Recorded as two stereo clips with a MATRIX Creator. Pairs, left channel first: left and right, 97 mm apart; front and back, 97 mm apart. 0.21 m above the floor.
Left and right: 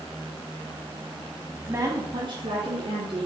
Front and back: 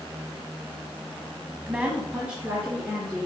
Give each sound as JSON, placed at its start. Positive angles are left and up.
{"t": 1.7, "sound": "a woman speaking", "azimuth_deg": -120, "distance_m": 1.0}